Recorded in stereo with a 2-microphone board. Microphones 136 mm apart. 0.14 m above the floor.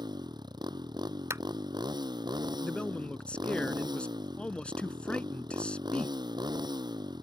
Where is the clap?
20° right (ahead or behind).